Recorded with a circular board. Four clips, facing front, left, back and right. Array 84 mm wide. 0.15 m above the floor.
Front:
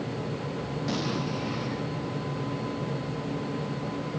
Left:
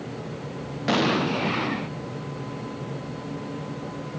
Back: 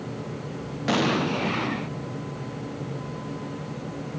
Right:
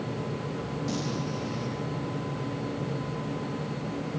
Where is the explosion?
125° left.